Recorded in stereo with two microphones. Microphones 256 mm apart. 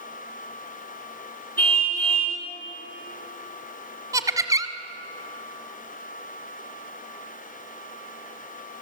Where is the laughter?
10° right (ahead or behind), 1.4 m.